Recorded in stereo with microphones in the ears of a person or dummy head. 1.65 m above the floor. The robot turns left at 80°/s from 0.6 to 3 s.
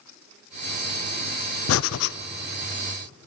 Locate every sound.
1.7 s breathing: 105° left, 0.6 m; by 2.1 s 70° left, 0.6 m